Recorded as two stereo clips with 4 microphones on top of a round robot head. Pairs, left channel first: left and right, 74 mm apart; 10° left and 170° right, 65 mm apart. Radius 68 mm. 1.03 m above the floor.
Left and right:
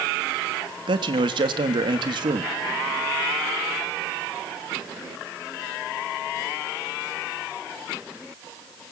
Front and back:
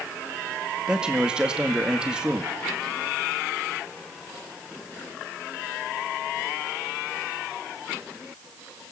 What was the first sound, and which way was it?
A man speaking, 95° right.